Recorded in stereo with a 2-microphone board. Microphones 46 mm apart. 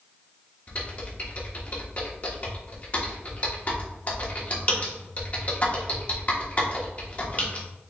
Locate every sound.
0.7 s typing on a keyboard: 35° left (ahead or behind), 1.0 m